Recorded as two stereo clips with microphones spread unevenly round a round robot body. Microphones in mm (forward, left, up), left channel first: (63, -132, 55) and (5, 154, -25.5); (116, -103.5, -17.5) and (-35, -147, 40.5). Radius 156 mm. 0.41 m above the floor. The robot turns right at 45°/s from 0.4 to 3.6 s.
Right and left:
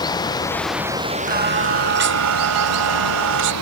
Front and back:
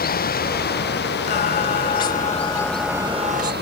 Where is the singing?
35° left; by 3.5 s 135° left.